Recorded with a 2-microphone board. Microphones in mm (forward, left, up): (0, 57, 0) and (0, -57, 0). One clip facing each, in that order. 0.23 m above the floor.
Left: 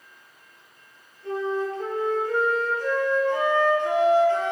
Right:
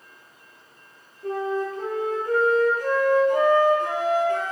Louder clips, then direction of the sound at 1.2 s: Even; 45° right (ahead or behind).